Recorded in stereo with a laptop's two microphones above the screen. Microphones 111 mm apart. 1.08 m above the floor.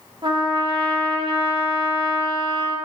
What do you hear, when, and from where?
0.2 s a trumpet: 45° right (ahead or behind), 0.5 m